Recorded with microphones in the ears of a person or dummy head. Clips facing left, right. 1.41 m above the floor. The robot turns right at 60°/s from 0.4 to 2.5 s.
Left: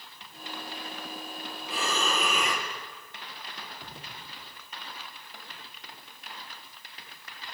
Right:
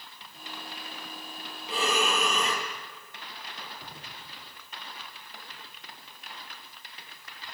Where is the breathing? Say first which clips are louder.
Right 3 dB; 30° right, 4.5 m; by 2.7 s 20° left, 4.5 m.